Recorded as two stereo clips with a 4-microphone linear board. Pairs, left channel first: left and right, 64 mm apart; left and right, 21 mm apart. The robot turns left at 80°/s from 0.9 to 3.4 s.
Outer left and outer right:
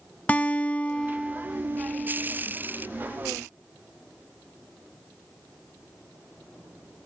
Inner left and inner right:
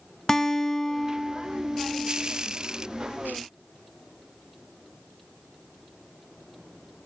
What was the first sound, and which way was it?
A guitar, 25° left.